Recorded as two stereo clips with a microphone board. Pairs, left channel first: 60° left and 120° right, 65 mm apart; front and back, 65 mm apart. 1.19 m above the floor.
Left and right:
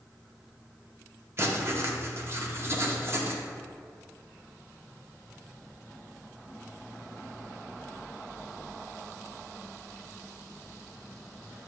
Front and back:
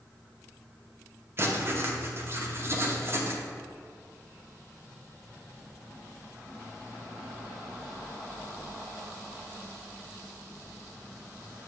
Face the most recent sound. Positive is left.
turn(degrees=-150)